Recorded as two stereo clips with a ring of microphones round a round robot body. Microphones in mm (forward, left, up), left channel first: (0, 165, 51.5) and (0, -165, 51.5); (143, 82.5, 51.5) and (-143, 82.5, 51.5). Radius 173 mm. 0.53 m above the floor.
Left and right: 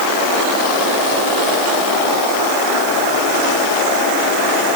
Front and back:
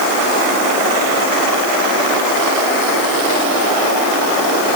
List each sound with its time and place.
Only background noise.